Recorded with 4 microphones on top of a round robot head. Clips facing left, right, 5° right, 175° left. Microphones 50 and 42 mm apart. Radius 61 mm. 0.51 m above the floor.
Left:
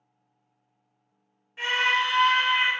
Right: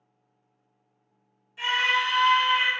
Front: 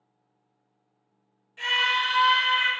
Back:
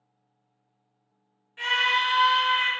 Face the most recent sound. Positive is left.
turn(degrees=60)